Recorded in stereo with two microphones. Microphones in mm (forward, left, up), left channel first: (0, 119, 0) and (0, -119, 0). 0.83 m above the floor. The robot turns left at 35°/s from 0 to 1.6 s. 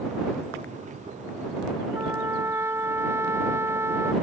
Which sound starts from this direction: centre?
A trumpet, at 1.9 s.